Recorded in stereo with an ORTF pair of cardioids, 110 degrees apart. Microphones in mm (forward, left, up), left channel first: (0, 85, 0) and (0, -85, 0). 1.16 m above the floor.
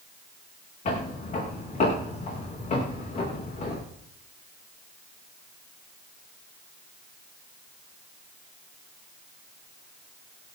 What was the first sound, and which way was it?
Footsteps, 40° left.